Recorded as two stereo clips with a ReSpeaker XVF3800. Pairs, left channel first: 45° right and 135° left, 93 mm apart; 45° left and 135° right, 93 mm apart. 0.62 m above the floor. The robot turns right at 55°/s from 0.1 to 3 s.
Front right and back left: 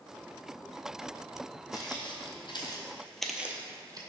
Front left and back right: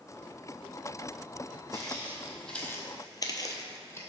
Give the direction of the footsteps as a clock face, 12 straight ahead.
3 o'clock.